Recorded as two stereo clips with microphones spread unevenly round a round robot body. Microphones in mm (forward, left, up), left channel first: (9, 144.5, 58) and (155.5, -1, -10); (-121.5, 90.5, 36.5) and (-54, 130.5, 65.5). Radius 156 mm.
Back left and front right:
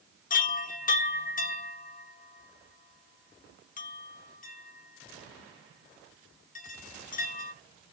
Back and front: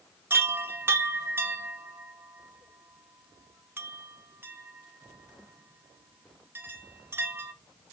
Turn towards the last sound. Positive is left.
turn(degrees=105)